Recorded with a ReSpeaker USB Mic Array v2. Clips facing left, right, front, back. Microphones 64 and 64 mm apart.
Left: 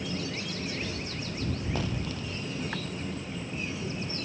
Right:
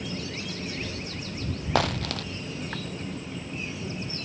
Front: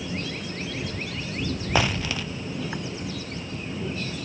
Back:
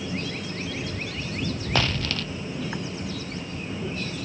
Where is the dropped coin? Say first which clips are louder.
Right 7 dB, front 2 dB; 75° right.